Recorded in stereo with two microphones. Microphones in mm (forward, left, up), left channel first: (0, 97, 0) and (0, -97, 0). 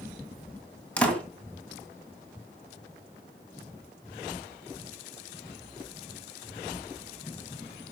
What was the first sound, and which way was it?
A door slam, 5° left (ahead or behind).